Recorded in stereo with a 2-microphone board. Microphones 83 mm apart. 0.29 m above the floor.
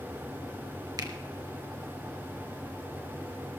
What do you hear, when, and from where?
1.0 s a finger snap: 50° right (ahead or behind), 1.8 m